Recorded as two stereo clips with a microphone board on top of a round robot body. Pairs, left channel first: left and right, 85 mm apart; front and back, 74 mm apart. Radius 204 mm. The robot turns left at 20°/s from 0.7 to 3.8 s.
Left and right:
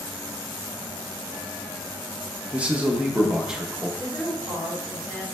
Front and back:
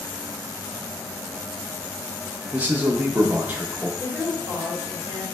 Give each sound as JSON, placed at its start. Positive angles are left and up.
{"t": 2.5, "sound": "a man speaking", "azimuth_deg": -140, "distance_m": 0.8}
{"t": 4.0, "sound": "a woman speaking", "azimuth_deg": 125, "distance_m": 1.6}